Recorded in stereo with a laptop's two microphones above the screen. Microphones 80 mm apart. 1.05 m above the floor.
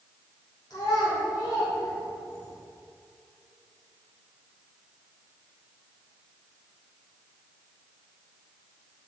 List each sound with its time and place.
0.7 s a child speaking: 60° left (ahead or behind), 2.5 m; by 2.5 s 45° left (ahead or behind), 3.5 m